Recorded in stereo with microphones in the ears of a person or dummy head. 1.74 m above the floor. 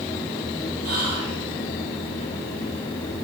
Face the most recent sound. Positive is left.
turn(degrees=-80)